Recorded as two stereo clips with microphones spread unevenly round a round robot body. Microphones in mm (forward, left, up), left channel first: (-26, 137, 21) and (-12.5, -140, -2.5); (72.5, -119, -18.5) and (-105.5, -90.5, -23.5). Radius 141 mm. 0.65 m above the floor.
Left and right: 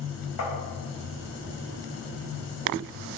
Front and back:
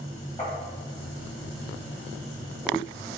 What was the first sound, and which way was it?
Tapping, 65° left.